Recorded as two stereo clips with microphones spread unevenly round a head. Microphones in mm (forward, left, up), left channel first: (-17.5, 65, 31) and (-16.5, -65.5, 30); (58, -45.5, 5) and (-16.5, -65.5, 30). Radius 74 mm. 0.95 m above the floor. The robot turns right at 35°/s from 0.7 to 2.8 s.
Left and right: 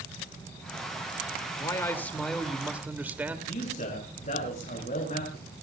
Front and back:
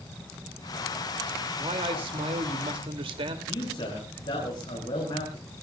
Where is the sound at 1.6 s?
150° left, 2.5 m; by 3.4 s 165° right, 2.5 m.